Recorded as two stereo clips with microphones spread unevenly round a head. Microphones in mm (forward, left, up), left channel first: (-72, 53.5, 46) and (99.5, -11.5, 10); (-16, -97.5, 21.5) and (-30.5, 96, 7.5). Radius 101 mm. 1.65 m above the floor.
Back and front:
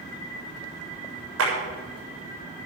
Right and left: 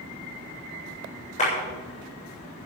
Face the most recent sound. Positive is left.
turn(degrees=-25)